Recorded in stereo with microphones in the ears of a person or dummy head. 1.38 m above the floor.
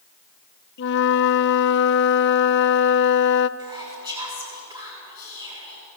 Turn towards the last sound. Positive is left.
turn(degrees=-20)  # may be behind; listen again after turning